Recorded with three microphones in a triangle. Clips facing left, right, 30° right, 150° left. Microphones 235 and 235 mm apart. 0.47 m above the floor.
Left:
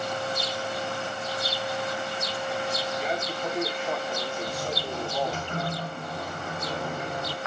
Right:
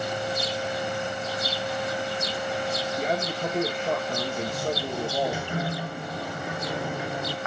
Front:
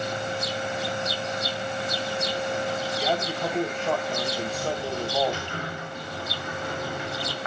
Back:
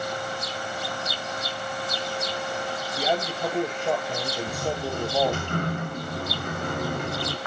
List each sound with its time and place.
3.0 s a man speaking: 135° right, 2.5 m
4.5 s a sliding door: 170° right, 1.3 m